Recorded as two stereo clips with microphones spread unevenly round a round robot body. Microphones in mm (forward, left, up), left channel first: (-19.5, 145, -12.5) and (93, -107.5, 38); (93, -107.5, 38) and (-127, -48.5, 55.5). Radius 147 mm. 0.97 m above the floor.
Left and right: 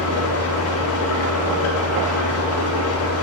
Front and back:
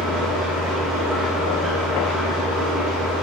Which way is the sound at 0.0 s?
75° left.